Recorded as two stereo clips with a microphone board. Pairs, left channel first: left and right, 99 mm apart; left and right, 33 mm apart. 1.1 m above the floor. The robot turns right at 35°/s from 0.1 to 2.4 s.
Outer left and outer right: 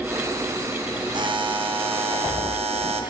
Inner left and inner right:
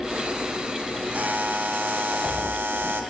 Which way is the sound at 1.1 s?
130° right.